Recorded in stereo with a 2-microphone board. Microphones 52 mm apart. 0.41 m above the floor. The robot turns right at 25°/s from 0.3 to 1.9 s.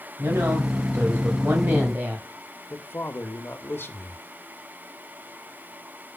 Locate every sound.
0.2 s a woman speaking: 75° right, 2.5 m; by 2.3 s 35° right, 2.5 m
2.7 s a man speaking: 45° left (ahead or behind), 1.2 m